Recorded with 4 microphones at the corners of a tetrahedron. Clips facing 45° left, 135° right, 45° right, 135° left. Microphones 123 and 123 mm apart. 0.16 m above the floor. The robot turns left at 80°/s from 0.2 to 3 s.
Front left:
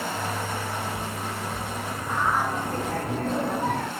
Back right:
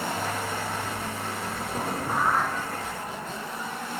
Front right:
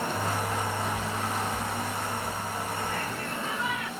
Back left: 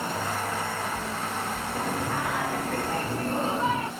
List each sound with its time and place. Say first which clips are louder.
1.8 s singing: back right 3 dB, back left 3 dB; straight behind; by 3.9 s 80° left